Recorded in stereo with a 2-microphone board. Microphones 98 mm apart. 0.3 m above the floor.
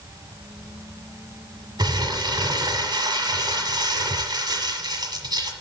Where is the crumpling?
50° right (ahead or behind), 1.5 m.